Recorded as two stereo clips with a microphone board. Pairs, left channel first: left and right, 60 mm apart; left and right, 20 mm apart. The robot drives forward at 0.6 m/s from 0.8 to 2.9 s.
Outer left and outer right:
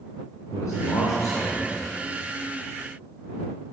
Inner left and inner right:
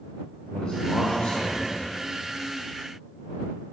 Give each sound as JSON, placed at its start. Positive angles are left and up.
{"t": 0.5, "sound": "a man speaking", "side_deg": 75, "distance_m": 1.9}